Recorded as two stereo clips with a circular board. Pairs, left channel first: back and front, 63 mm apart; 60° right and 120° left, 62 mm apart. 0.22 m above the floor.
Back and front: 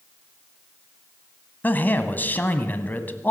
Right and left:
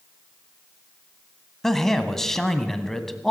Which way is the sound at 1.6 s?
140° right.